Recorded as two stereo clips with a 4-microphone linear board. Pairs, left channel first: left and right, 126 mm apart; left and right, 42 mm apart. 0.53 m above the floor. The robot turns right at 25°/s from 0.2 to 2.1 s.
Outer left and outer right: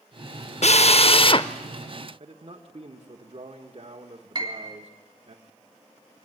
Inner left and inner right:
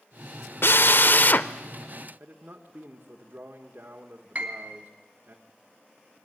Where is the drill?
60° left (ahead or behind), 0.6 m; by 1.5 s 40° left (ahead or behind), 0.6 m.